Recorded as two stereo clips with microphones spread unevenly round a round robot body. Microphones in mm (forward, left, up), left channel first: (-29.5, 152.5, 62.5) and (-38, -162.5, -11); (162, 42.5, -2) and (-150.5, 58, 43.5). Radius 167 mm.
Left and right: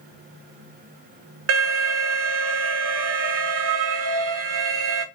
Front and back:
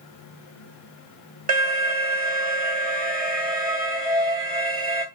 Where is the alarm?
115° right, 1.5 m.